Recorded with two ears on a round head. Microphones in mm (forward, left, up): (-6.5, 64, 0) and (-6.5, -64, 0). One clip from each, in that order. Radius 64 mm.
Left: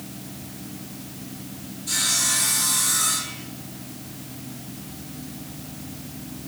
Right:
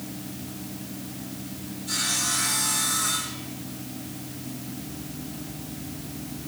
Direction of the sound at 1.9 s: 50° left (ahead or behind).